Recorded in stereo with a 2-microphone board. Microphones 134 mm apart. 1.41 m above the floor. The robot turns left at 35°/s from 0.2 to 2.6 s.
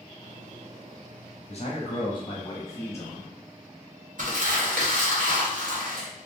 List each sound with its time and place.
1.5 s a man speaking: 60° left, 0.7 m; by 3.3 s 20° left, 0.7 m
4.2 s crumpling: 65° right (ahead or behind), 1.2 m